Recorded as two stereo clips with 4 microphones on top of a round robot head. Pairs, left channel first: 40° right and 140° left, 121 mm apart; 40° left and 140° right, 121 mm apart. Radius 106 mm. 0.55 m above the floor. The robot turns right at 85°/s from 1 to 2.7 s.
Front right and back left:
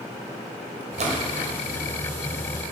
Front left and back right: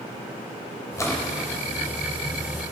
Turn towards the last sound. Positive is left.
turn(degrees=-110)